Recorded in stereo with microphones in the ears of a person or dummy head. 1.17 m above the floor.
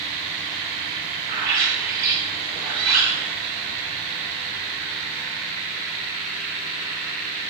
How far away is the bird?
About 1.9 m.